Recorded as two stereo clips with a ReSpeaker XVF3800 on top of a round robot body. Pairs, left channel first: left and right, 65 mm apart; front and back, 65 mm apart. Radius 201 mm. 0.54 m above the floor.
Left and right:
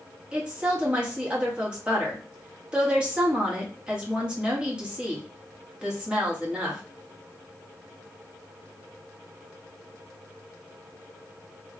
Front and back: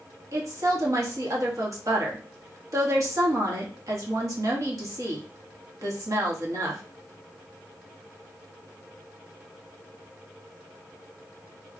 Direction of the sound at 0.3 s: 165° right.